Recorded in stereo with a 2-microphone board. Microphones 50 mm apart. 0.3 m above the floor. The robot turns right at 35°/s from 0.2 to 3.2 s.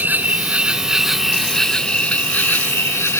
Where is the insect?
40° right; by 3.2 s 65° left.